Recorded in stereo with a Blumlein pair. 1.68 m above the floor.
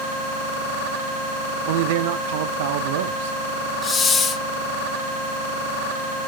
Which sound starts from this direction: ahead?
A hiss, at 3.8 s.